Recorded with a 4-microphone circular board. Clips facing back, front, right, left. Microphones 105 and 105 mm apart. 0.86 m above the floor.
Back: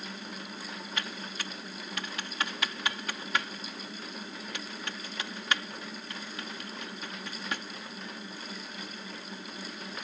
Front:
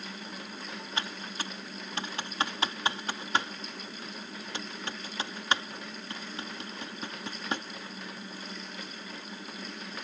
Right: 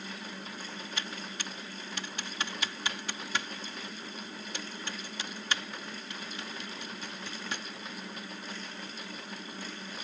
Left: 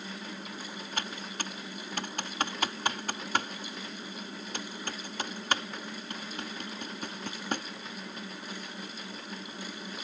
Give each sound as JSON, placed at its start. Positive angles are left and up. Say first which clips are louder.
{"t": 1.0, "sound": "typing on a keyboard", "louder": "front 3 dB, left 6 dB", "azimuth_deg": 60}